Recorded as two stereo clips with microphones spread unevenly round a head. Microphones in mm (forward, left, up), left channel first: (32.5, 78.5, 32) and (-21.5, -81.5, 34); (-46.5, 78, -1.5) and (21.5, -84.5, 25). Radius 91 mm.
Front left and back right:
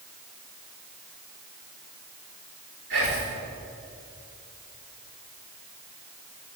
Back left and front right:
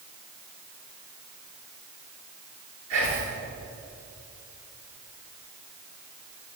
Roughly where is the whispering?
Right.